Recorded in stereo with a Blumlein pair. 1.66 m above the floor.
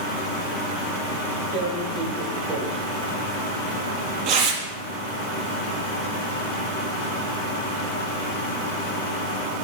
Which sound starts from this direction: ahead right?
Tearing paper, at 1.5 s.